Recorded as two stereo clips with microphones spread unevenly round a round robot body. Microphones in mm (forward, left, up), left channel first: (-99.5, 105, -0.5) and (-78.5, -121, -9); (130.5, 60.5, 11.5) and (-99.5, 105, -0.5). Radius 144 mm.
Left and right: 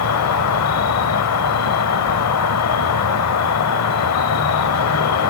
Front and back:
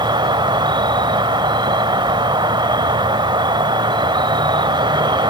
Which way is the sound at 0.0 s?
95° left.